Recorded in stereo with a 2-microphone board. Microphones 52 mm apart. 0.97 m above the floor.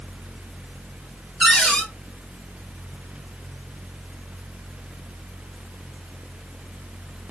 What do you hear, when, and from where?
1.4 s a cupboard door: centre (ahead or behind), 2.5 m